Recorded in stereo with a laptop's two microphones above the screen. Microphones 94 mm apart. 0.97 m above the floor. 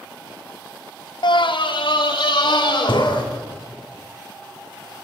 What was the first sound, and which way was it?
A scream, 60° left (ahead or behind).